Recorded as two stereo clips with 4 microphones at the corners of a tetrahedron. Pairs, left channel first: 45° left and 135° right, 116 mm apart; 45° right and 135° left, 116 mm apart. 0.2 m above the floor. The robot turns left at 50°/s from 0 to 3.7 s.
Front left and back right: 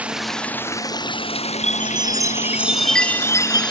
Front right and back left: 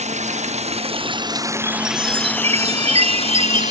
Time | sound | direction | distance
0.0 | running water | 145° left | ?
1.6 | a chime | 165° right | ?